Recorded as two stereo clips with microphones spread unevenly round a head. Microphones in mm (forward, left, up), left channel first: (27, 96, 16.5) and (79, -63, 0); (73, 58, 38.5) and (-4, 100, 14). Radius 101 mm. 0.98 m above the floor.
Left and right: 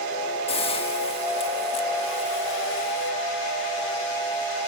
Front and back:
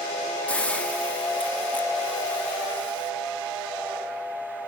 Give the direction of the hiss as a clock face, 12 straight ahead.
10 o'clock.